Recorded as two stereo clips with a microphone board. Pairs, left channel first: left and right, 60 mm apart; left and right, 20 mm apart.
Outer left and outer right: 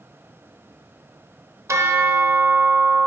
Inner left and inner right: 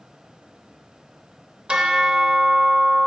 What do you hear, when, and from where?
1.7 s a bell: 55° right (ahead or behind), 0.7 m